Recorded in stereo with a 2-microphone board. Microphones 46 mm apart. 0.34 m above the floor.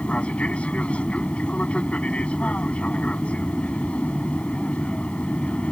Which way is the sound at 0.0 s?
30° left (ahead or behind).